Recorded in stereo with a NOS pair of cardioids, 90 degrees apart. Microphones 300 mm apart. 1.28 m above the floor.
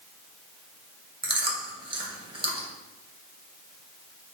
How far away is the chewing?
About 1.1 m.